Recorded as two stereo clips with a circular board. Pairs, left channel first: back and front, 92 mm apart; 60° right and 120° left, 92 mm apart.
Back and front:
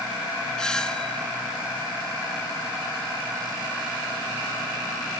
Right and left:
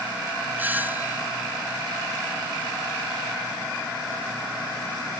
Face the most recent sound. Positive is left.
turn(degrees=115)